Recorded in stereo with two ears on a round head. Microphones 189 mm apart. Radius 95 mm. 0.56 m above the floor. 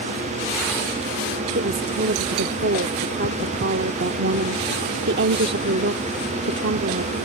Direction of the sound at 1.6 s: 50° right (ahead or behind).